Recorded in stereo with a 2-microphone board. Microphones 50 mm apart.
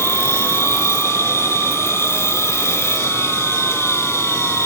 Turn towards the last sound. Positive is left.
turn(degrees=65)  # may be behind; listen again after turning